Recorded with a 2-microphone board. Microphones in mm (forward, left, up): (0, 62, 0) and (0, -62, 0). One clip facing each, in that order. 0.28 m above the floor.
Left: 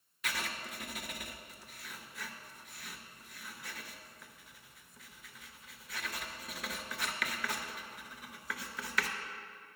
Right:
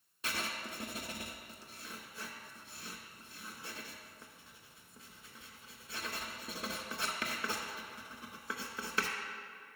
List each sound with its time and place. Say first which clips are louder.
0.2 s writing: even; 30° right (ahead or behind), 0.7 m